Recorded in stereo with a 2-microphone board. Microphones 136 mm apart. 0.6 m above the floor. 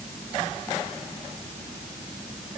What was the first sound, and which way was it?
Only background noise.